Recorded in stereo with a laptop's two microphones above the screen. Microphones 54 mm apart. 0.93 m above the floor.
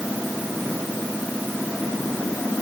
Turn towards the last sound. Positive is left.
No sound to turn to.